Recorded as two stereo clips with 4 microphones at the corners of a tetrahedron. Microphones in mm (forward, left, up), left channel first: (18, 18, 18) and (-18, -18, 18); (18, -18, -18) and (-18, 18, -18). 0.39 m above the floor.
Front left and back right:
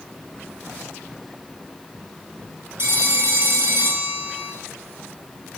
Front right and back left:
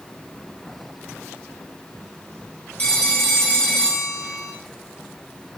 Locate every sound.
2.8 s a phone ringing: 100° right, 3.5 m